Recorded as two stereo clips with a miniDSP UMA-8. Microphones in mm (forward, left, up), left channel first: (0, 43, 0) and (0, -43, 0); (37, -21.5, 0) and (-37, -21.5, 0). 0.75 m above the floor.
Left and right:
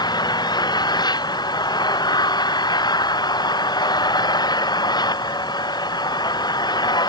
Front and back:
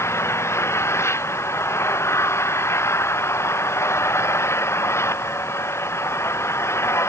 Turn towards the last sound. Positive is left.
turn(degrees=55)